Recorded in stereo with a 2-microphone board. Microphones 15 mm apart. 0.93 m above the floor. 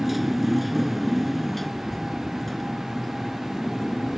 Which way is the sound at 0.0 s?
5° right (ahead or behind).